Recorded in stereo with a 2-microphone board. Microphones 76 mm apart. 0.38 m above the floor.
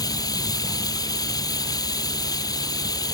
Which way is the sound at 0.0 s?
55° left (ahead or behind).